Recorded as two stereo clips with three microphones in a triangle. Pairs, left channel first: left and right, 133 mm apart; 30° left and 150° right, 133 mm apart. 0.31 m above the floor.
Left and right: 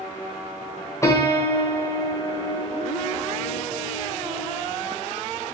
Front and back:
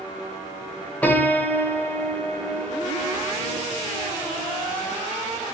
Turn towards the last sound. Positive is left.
turn(degrees=90)